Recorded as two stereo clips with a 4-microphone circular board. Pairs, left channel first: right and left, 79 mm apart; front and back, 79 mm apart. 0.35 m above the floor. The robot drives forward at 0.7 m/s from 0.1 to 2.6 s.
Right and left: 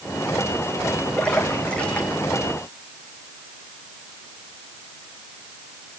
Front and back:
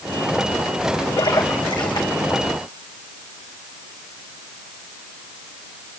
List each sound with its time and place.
1.2 s a splash: 15° right, 4.5 m